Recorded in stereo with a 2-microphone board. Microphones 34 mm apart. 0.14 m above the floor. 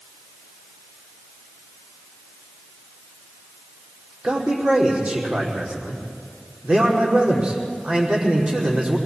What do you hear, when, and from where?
4.2 s a man speaking: 30° right (ahead or behind), 5 m